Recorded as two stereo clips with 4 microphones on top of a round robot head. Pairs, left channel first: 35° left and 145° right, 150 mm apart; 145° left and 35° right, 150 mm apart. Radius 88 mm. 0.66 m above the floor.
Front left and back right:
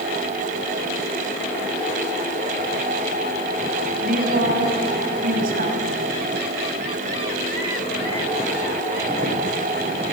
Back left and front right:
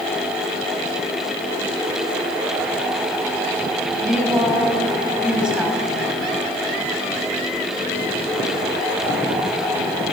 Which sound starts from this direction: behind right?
A woman speaking, at 4.0 s.